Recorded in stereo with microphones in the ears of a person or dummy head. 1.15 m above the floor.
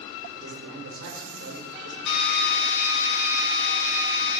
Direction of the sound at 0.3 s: 65° right (ahead or behind).